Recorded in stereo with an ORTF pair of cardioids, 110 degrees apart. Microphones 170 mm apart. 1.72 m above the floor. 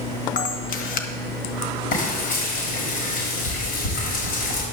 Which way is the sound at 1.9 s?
65° left.